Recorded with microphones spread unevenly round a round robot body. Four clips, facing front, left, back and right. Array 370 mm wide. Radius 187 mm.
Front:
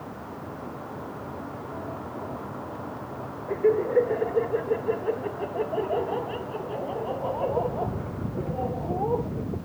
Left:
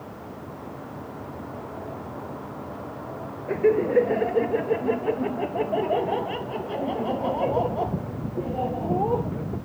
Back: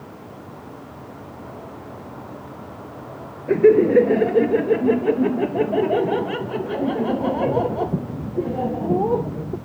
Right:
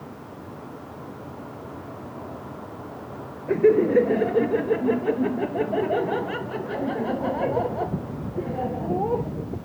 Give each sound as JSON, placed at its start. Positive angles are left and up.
{"t": 3.5, "sound": "laughter", "azimuth_deg": -160}